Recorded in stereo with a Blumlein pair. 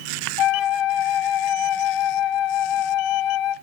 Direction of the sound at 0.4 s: 35° left.